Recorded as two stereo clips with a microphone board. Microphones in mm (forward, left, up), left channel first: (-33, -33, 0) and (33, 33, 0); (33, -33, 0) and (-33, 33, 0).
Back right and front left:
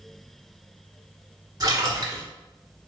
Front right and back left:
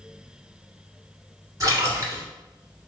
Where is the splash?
90° left, 1.3 m.